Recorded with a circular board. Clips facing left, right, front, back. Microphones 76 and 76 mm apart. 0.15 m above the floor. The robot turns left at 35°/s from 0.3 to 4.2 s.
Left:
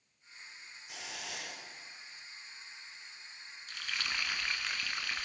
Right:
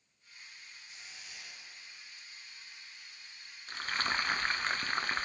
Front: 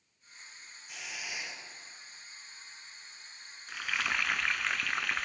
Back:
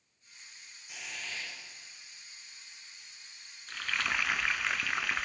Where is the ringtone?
I don't hear a ringtone.